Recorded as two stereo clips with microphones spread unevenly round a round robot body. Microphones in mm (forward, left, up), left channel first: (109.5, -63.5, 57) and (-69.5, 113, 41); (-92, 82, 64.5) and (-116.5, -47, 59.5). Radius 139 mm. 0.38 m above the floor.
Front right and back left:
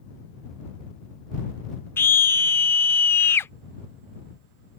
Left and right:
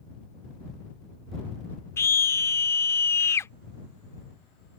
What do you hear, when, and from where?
2.0 s a scream: 35° left